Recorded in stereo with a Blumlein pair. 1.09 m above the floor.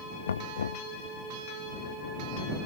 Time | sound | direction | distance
0.3 | knocking | 70° left | ?